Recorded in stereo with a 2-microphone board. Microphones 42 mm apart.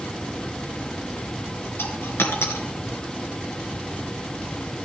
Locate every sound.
1.8 s a dropped coin: 80° left, 1.9 m